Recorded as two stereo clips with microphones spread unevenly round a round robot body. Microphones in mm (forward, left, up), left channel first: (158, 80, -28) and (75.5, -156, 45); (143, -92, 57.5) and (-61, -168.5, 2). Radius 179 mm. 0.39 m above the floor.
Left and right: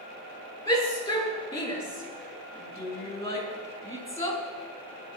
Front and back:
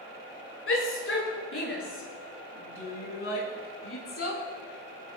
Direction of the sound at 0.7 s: 5° right.